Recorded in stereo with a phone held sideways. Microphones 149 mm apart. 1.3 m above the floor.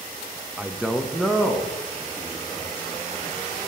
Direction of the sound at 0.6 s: 10° right (ahead or behind).